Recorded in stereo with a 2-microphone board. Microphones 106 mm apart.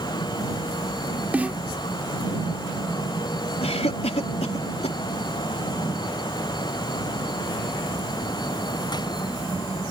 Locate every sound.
1.3 s a snare drum: 15° right (ahead or behind)
3.6 s a cough: 80° left